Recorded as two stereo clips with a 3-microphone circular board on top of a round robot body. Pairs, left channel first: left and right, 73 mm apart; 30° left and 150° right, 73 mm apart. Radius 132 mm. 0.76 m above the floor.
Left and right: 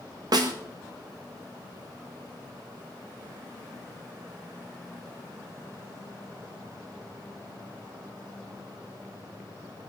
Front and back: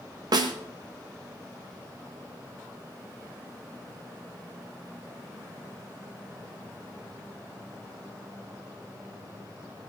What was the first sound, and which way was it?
A snare drum, 120° right.